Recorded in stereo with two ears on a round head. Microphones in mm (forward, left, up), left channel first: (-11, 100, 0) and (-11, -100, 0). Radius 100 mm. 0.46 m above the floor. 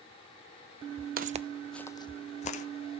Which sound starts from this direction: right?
Footsteps, at 1.2 s.